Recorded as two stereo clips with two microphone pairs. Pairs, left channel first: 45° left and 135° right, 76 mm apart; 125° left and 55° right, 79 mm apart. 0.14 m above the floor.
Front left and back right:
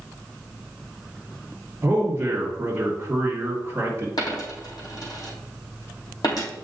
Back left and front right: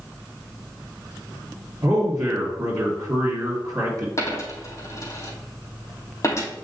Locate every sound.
1.8 s a man speaking: 85° right, 2.5 m
4.2 s a dropped coin: 75° left, 3 m